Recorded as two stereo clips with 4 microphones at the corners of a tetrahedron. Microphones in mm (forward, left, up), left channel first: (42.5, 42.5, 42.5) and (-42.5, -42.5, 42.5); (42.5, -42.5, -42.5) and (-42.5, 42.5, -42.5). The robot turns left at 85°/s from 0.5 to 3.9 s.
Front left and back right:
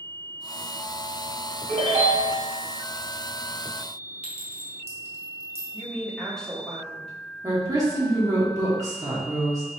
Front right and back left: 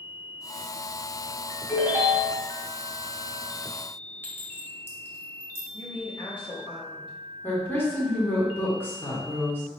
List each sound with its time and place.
1.7 s a ringtone: 140° right, 1.8 m; by 2.4 s 155° left, 1.8 m
4.2 s a clink: 115° right, 1.2 m
5.7 s a woman speaking: 40° right, 1.5 m
7.4 s a woman speaking: 100° right, 1.5 m